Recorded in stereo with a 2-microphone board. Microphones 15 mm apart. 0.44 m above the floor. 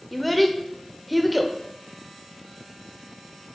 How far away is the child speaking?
About 0.7 m.